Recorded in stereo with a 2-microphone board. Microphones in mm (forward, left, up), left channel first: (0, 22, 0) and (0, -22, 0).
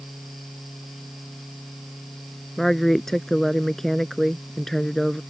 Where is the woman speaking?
5° left (ahead or behind).